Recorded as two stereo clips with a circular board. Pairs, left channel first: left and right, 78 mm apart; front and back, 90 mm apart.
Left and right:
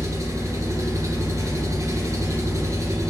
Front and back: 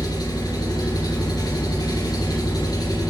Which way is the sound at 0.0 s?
40° right.